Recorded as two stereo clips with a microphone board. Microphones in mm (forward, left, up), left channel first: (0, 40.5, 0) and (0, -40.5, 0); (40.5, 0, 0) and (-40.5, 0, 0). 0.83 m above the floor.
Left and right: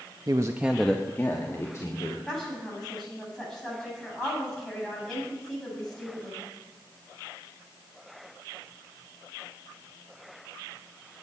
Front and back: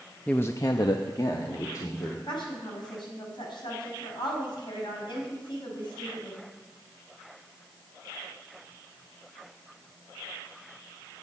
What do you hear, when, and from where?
0.3 s a man speaking: 70° right, 0.7 m; by 2.2 s 40° left, 2.5 m
2.3 s a woman speaking: 5° left, 5.5 m